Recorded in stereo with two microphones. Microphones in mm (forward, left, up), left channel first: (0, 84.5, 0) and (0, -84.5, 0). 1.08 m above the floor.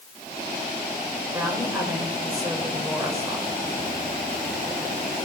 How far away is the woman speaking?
About 4.5 m.